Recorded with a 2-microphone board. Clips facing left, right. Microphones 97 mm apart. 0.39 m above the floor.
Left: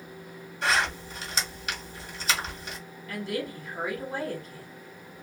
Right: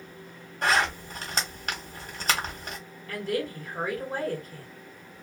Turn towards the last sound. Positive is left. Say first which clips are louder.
# right 2 dB
turn(degrees=-45)  # may be behind; listen again after turning